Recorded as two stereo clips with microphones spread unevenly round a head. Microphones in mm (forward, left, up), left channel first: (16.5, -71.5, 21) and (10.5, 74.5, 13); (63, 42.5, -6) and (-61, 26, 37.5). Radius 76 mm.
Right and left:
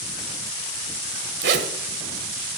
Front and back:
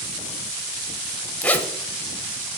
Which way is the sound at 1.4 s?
95° left.